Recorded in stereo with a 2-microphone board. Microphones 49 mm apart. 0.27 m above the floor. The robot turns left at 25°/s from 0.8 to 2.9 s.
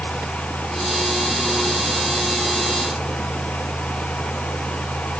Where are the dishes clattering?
I don't hear dishes clattering.